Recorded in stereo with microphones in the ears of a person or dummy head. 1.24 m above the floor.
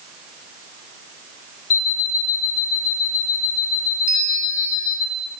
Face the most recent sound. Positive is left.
turn(degrees=45)  # may be behind; listen again after turning